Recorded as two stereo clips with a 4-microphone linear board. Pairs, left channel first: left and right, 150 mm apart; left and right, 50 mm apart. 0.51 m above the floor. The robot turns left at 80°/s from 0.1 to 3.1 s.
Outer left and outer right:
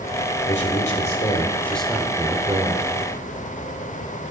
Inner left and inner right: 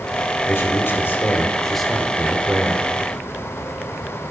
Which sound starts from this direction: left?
A man speaking, at 0.5 s.